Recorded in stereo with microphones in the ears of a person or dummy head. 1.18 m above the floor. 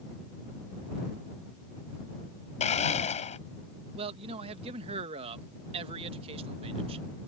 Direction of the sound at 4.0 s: 30° right (ahead or behind).